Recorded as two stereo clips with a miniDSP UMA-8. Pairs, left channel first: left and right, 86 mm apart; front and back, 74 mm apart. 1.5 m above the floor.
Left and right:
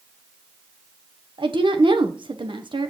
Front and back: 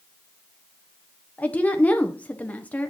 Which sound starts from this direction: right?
A woman speaking, at 1.4 s.